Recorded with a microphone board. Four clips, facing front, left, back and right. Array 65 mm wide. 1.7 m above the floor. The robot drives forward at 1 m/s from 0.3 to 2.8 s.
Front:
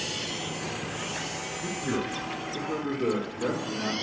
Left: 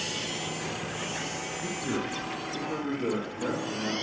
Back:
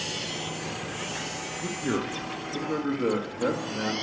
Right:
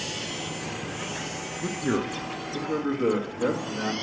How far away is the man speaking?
About 0.7 m.